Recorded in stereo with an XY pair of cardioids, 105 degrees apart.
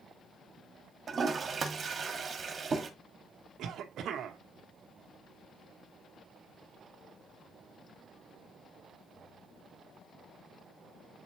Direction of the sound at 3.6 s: 70° right.